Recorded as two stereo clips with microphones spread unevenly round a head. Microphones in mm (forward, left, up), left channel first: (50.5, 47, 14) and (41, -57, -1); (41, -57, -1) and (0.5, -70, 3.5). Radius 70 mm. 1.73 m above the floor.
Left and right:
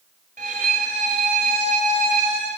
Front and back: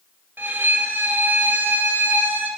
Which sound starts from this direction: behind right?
A violin, at 0.4 s.